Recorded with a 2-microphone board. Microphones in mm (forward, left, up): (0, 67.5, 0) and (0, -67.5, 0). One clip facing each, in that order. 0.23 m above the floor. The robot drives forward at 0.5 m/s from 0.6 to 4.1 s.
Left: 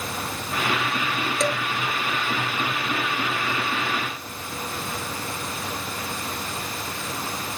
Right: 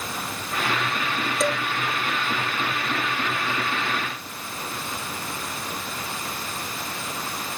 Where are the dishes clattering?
Centre (ahead or behind), 3 m.